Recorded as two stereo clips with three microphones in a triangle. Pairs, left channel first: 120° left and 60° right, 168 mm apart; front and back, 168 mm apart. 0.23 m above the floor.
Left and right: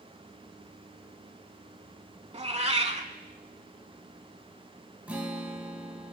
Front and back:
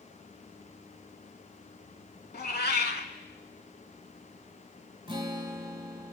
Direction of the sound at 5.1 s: 135° right.